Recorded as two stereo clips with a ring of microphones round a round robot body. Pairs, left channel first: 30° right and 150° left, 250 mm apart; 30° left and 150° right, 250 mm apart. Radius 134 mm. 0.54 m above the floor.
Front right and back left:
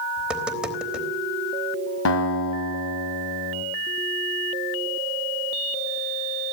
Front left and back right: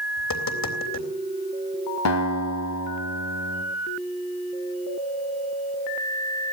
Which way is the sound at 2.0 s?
5° left.